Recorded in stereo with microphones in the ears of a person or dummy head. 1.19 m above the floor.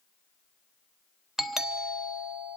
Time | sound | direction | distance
1.4 | a doorbell | centre (ahead or behind) | 0.8 m